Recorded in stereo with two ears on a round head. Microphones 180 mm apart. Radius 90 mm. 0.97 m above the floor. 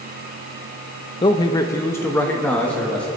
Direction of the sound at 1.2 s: 25° left (ahead or behind).